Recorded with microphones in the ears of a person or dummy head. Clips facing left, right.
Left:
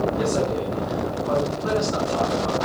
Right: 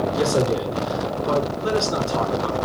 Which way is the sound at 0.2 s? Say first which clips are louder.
Right 2 dB; 45° right (ahead or behind).